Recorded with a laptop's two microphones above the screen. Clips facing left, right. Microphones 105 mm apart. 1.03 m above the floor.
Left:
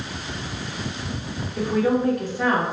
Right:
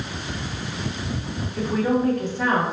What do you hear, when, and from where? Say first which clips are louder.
1.6 s a woman speaking: left 1 dB; 15° left (ahead or behind), 0.9 m